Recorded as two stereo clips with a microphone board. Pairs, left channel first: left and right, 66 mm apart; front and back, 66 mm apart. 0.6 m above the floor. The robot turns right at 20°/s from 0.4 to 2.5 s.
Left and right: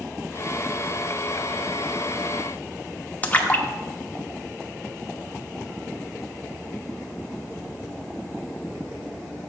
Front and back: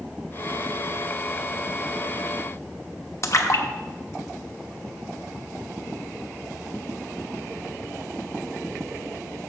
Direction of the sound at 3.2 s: 25° left.